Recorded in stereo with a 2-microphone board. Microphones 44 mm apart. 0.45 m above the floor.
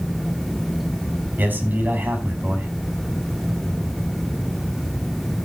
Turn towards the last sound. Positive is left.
turn(degrees=-45)  # may be behind; listen again after turning